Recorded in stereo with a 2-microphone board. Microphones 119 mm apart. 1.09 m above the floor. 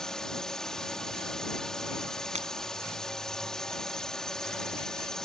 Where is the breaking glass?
70° right (ahead or behind).